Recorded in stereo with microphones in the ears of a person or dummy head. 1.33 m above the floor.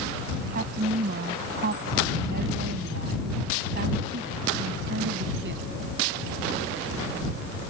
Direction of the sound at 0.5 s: 55° right (ahead or behind).